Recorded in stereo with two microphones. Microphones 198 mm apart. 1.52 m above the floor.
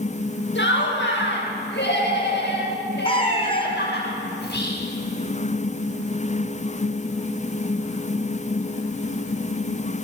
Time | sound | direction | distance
0.6 | laughter | 75° left (ahead or behind) | 8.5 m
3.0 | a cat meowing | 30° left (ahead or behind) | 3 m
4.4 | whispering | 60° left (ahead or behind) | 6 m